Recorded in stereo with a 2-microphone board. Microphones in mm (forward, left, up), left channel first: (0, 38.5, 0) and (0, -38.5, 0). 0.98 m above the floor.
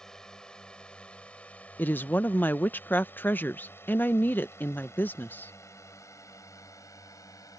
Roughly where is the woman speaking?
Left.